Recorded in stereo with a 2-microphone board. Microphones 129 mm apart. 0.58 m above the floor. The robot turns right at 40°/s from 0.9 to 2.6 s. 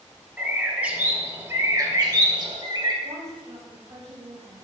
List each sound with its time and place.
0.4 s a bird: 160° right, 1.0 m; by 2.9 s 95° right, 1.0 m
3.0 s a woman speaking: 65° right (ahead or behind), 2.5 m